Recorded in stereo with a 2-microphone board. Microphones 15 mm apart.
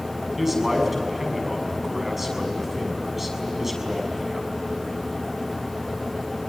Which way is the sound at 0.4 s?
15° right (ahead or behind).